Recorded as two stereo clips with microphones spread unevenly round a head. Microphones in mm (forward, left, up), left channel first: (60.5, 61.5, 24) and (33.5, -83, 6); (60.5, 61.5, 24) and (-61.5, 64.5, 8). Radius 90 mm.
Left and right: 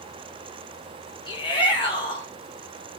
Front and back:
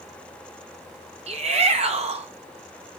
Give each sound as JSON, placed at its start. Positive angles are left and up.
{"t": 1.3, "sound": "a shout", "azimuth_deg": 145, "distance_m": 2.5}